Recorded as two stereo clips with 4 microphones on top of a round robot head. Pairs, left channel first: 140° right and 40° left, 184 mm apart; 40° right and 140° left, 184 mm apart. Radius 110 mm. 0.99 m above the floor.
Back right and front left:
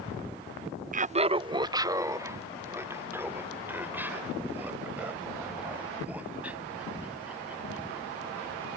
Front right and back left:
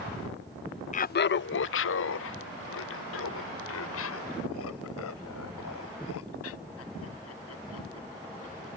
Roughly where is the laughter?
Ahead.